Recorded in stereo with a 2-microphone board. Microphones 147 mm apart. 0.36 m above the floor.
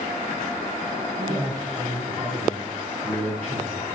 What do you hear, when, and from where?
1.2 s a man speaking: 25° right (ahead or behind), 3 m; by 3.9 s 50° right (ahead or behind), 4 m